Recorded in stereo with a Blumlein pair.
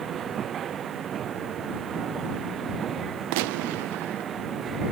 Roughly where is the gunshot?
Ahead right.